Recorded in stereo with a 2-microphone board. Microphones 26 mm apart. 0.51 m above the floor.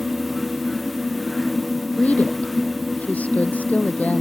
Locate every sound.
2.0 s a woman speaking: 65° left (ahead or behind)